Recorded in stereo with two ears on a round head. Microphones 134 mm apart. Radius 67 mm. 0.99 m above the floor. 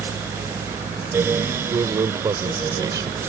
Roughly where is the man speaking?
Right.